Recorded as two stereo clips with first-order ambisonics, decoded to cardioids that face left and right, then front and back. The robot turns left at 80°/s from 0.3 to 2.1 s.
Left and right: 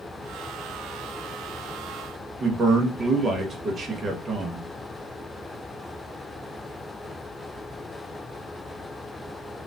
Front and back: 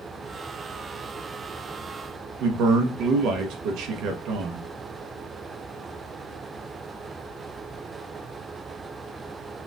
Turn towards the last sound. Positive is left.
turn(degrees=-155)